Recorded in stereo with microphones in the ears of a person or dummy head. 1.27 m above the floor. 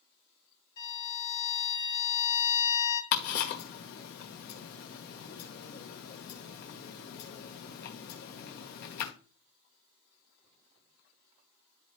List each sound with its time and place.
0.8 s a violin: 20° left (ahead or behind), 2.5 m
3.1 s ticking: 45° left (ahead or behind), 1.4 m